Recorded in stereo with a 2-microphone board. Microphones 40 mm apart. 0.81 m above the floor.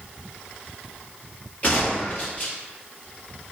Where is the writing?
I don't hear writing.